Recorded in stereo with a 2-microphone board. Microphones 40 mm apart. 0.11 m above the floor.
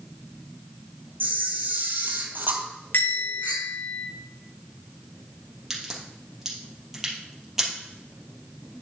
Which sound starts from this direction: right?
A camera shutter, at 1.2 s.